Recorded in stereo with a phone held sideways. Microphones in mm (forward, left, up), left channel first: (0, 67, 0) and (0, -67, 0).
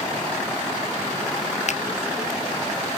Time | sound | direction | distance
1.7 | a finger snap | 60° left (ahead or behind) | 0.7 m